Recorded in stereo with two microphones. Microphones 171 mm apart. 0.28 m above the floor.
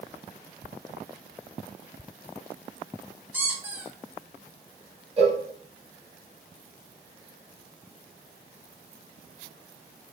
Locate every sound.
3.3 s a squeak: 10° right (ahead or behind), 0.8 m
5.2 s a cowbell: 35° right (ahead or behind), 0.7 m